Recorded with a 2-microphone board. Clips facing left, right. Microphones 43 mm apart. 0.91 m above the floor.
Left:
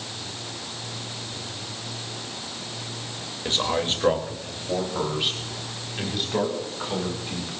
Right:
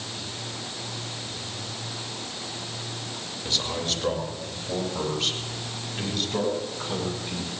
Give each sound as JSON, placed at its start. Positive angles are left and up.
{"t": 3.5, "sound": "a man speaking", "side_deg": 40, "distance_m": 3.5}